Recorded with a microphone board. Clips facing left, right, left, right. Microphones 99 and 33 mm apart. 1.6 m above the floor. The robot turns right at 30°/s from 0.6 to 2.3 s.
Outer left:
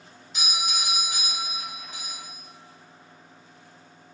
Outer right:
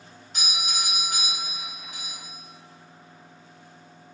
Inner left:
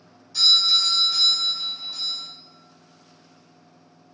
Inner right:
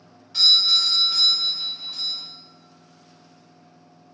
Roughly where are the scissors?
No scissors in this recording.